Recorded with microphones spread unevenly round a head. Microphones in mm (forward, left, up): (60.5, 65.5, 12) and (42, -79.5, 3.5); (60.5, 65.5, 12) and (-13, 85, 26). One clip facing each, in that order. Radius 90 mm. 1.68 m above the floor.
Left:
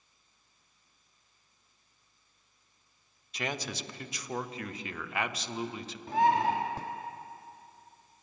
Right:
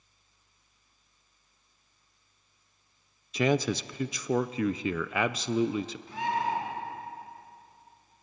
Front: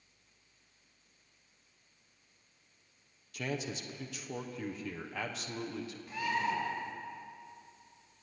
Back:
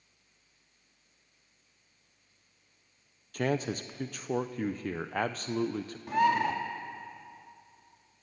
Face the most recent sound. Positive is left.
turn(degrees=140)